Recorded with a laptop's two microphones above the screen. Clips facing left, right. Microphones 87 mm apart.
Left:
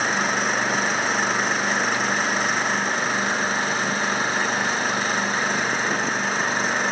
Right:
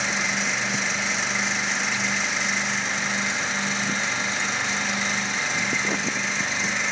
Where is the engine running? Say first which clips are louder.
Left 5 dB; 45° left (ahead or behind).